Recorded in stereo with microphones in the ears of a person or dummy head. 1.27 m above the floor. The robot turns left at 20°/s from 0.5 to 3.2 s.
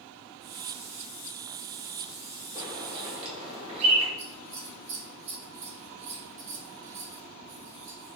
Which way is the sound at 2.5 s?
20° right (ahead or behind).